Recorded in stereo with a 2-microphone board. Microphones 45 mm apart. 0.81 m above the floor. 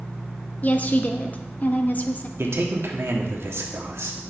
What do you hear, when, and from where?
0.6 s a woman speaking: 35° left (ahead or behind), 0.8 m
2.4 s a man speaking: 70° right (ahead or behind), 1.5 m